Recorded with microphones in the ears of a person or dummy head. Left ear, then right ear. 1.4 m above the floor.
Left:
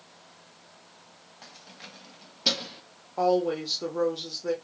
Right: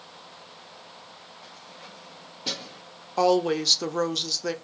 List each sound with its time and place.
1.4 s keys jangling: 65° left (ahead or behind), 1.2 m; by 2.8 s 25° left (ahead or behind), 0.7 m
3.2 s a woman speaking: 60° right (ahead or behind), 0.8 m